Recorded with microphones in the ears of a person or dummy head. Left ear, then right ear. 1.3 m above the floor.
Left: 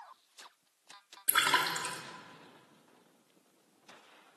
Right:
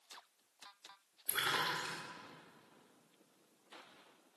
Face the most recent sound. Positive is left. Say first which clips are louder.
# left 7 dB
turn(degrees=50)  # may be behind; listen again after turning